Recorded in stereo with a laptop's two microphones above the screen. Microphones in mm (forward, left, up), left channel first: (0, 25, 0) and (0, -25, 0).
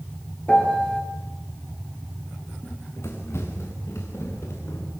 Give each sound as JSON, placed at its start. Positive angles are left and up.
{"t": 0.5, "sound": "a piano", "side_deg": 25, "distance_m": 3.0}
{"t": 2.6, "sound": "running footsteps", "side_deg": 55, "distance_m": 5.5}